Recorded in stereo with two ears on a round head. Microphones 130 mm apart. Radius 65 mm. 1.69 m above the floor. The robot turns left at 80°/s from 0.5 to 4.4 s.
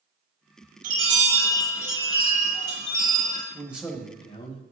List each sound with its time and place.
0.8 s a chime: 125° right, 3.5 m; by 3.4 s 30° left, 3.5 m
3.5 s a man speaking: 155° right, 1.4 m; by 4.6 s 135° left, 1.4 m